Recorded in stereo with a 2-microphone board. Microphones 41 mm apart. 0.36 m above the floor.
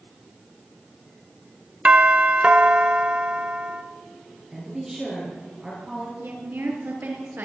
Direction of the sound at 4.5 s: 10° right (ahead or behind).